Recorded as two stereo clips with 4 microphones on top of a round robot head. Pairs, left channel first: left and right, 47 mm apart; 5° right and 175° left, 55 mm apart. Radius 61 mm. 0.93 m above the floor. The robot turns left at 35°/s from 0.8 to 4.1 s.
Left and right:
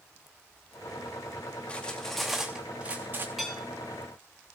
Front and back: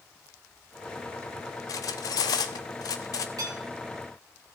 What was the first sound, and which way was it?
Cutlery clinking, 20° left.